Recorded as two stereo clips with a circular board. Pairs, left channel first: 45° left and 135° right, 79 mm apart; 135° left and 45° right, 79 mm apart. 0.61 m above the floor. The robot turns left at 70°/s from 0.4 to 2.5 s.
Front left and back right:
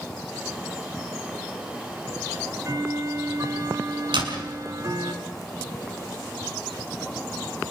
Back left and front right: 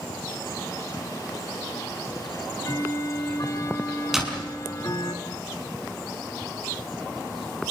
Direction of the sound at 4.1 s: 130° right.